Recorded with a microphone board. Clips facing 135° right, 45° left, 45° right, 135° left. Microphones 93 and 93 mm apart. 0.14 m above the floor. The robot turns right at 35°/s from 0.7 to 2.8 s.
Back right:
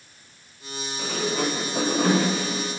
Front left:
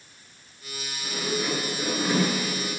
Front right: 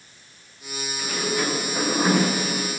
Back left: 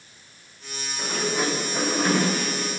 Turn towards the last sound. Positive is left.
turn(degrees=-95)